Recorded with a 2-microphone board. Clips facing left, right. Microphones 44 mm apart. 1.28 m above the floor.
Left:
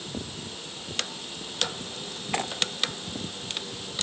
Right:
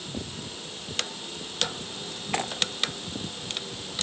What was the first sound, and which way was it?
Only background noise.